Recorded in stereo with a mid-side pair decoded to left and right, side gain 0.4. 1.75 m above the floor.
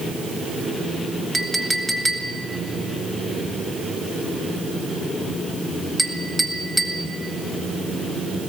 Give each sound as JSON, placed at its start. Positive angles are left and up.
{"t": 1.3, "sound": "a clink", "azimuth_deg": 0, "distance_m": 2.5}